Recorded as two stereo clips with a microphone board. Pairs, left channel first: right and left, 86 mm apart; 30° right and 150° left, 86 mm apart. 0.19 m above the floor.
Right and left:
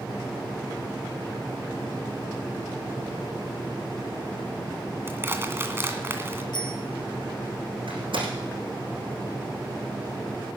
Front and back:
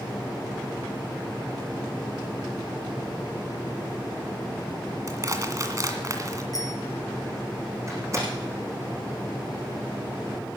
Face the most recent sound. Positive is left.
turn(degrees=100)